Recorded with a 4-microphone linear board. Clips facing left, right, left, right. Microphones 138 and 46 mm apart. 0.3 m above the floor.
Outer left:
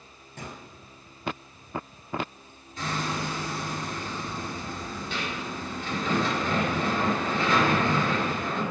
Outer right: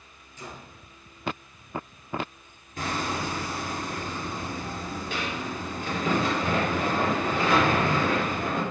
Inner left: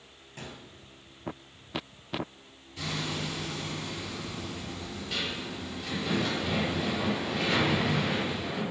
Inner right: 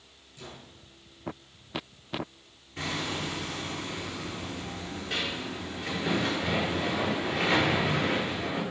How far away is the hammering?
About 4 m.